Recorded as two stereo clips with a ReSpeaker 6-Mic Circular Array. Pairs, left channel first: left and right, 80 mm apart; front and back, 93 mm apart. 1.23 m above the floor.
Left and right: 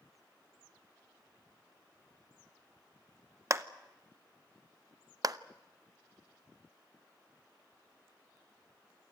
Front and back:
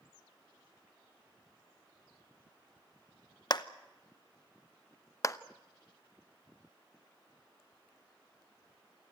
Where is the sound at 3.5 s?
40° right, 0.8 m.